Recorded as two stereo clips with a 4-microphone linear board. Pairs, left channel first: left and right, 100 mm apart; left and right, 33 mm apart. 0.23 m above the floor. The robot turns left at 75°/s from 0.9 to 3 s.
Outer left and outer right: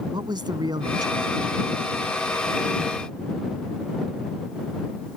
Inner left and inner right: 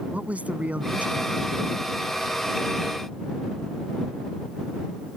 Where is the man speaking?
115° right; by 1.6 s 170° right.